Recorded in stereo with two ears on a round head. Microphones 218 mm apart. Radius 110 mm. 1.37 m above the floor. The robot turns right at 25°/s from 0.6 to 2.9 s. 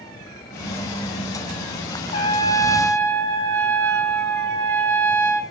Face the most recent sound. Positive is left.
turn(degrees=10)  # may be behind; listen again after turning